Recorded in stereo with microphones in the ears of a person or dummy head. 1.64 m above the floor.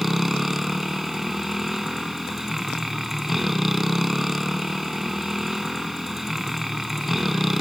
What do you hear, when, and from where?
0.0 s a motorcycle: centre (ahead or behind)